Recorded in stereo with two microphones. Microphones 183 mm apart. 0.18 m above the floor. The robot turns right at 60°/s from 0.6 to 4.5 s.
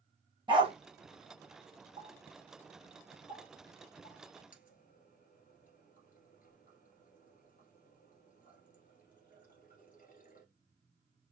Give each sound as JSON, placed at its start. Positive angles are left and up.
{"t": 0.5, "sound": "a dog barking", "side_deg": -25, "distance_m": 1.5}
{"t": 2.0, "sound": "a running tap", "side_deg": -25, "distance_m": 2.0}